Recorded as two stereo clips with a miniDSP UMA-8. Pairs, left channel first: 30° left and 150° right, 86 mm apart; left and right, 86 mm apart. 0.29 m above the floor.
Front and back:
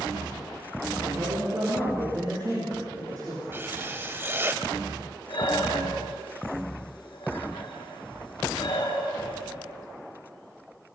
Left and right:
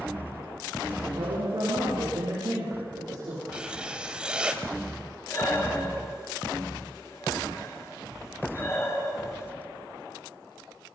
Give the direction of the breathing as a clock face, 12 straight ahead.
11 o'clock.